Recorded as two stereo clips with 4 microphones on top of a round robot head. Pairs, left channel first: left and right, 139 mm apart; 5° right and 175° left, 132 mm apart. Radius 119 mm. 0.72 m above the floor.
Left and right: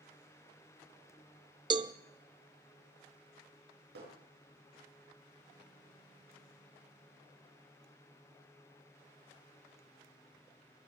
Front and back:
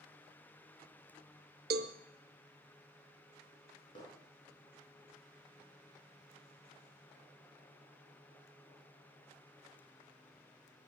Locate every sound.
1.7 s a cowbell: 150° right, 0.6 m
4.0 s hammering: 70° right, 5.5 m